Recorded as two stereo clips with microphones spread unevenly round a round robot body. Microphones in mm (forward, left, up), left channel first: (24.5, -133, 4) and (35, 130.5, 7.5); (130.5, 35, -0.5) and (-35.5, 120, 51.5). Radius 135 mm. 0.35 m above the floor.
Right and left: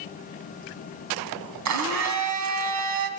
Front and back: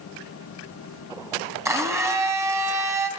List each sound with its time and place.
1.6 s a blender: 70° left, 3 m